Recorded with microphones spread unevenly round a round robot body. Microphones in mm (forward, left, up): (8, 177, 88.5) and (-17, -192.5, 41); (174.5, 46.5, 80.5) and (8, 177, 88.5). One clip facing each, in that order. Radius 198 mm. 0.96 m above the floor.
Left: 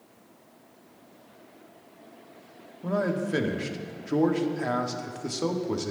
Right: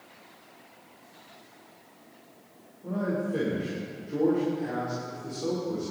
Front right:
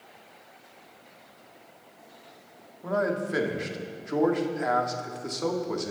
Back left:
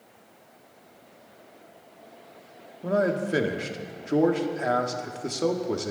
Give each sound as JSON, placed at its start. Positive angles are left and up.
{"t": 2.8, "sound": "a man speaking", "azimuth_deg": 85, "distance_m": 1.8}